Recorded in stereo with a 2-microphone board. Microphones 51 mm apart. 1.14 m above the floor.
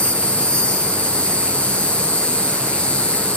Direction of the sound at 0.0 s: 20° left (ahead or behind).